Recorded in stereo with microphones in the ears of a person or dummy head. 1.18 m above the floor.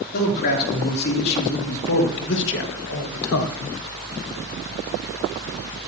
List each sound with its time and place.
0.1 s a man speaking: 50° left (ahead or behind), 3.5 m; by 3.8 s 65° left (ahead or behind), 1.1 m